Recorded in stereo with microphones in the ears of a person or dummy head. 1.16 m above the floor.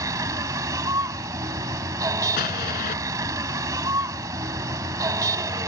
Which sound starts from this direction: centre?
A vehicle, at 0.0 s.